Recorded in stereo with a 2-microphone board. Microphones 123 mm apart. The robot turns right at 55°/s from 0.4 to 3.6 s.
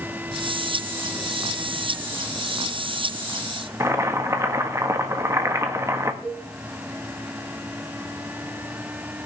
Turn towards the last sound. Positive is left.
turn(degrees=5)  # may be behind; listen again after turning